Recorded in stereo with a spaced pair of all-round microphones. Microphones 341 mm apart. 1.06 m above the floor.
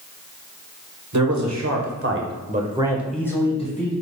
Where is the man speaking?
55° right (ahead or behind), 1.0 m; by 3.9 s 25° left (ahead or behind), 0.9 m.